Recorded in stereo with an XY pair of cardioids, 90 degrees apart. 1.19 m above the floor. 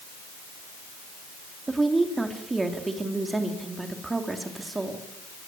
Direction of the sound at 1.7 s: 25° right.